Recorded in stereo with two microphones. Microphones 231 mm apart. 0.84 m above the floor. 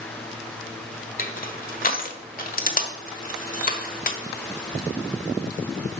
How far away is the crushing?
About 1.3 m.